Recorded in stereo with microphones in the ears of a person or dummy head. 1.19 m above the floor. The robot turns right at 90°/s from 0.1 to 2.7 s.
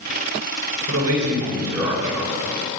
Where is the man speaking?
90° right, 3.5 m; by 2.4 s 50° left, 3.5 m.